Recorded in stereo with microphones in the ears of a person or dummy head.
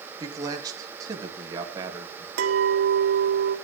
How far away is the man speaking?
About 3 m.